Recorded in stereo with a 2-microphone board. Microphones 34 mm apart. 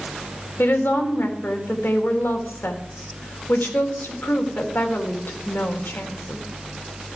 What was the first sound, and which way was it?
A woman speaking, 80° left.